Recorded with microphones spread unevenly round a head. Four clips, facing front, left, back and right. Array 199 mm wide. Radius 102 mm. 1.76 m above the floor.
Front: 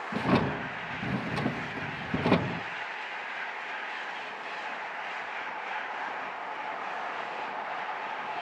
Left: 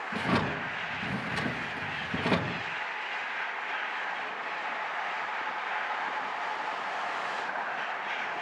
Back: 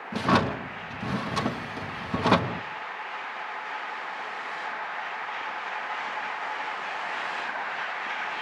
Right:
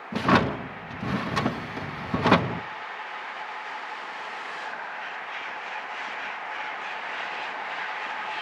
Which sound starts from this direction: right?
A drawer, at 0.1 s.